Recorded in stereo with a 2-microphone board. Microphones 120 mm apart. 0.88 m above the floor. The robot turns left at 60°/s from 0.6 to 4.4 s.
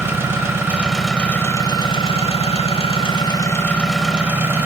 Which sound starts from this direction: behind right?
An engine running, at 0.0 s.